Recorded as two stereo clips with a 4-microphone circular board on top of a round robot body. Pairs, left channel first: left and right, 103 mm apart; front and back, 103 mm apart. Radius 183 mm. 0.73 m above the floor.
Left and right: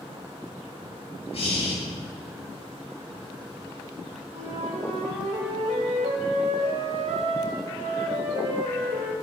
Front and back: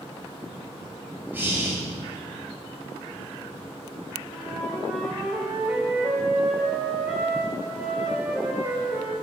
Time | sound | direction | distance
1.3 | breathing | 110° left | 2.5 m
4.3 | a flute | 105° right | 0.5 m